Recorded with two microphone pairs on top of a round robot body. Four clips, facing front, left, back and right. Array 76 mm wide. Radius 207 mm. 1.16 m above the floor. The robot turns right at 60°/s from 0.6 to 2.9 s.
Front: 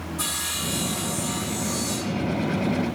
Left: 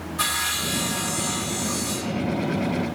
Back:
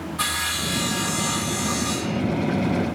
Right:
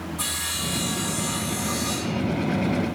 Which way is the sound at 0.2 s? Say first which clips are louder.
Left 5 dB, back 8 dB; 130° left.